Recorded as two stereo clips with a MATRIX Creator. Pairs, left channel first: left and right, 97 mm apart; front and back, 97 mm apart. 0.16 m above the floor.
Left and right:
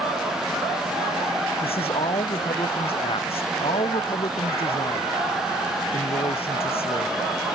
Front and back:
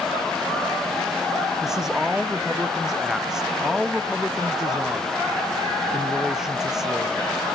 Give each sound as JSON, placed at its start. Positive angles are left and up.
{"t": 1.6, "sound": "a man speaking", "azimuth_deg": 95}